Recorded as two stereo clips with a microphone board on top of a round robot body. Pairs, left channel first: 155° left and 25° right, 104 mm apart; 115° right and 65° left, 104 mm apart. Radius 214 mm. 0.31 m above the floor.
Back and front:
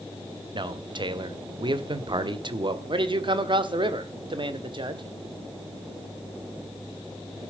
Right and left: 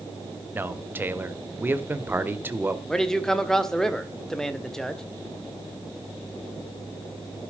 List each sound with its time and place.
0.5 s a man speaking: straight ahead, 1.9 m
2.9 s a man speaking: 30° right, 2 m